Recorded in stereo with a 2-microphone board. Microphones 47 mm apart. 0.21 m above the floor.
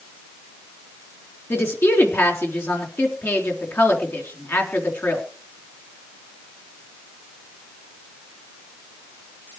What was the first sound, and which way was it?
A woman speaking, 60° left (ahead or behind).